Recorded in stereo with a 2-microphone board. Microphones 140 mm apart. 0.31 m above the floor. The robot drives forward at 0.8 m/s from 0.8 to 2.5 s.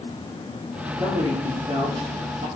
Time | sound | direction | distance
1.0 | a man speaking | 30° right (ahead or behind) | 5 m